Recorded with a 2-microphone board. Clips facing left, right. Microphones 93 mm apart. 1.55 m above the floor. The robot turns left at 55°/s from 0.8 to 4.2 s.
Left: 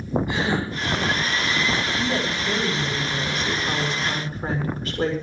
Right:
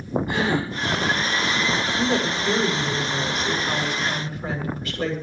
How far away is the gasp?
About 9.5 m.